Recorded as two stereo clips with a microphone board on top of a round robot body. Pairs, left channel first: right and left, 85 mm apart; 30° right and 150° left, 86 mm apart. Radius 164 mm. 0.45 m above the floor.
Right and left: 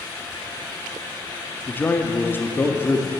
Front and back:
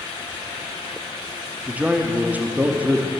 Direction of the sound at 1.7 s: 145° right.